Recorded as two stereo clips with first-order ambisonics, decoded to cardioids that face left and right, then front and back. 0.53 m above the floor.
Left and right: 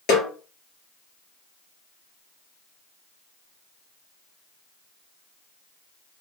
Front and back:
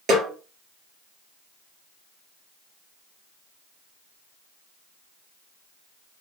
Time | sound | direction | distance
0.1 | a snare drum | 125° left | 2.5 m